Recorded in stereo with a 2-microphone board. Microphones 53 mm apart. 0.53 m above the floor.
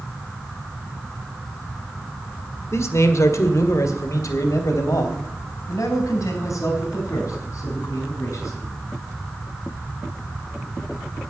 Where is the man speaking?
55° left (ahead or behind), 1.6 m; by 8.7 s 65° left (ahead or behind), 5.5 m.